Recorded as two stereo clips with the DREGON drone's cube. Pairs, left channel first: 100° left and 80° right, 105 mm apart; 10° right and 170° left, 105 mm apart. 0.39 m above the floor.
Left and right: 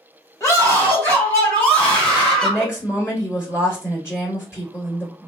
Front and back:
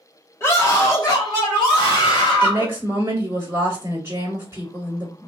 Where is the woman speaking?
125° left, 1.3 m.